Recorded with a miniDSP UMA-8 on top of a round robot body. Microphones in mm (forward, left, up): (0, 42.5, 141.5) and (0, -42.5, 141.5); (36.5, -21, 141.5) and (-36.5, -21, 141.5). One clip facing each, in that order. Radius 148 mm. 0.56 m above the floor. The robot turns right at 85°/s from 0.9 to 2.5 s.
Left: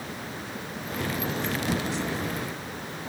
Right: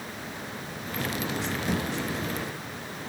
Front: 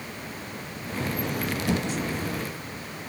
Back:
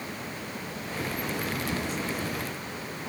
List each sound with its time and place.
1.7 s a thud: 30° right, 5.5 m; by 1.9 s 5° right, 5.5 m